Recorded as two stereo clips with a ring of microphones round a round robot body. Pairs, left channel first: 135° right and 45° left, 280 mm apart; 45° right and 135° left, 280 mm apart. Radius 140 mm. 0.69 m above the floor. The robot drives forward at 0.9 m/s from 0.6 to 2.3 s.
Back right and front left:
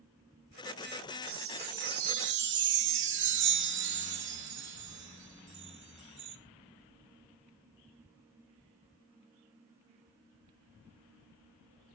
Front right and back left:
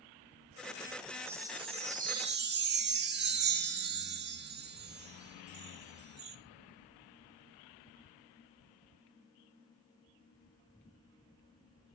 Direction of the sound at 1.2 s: 55° left.